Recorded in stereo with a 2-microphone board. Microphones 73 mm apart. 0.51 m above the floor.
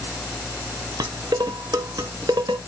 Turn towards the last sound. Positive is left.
turn(degrees=-65)  # may be behind; listen again after turning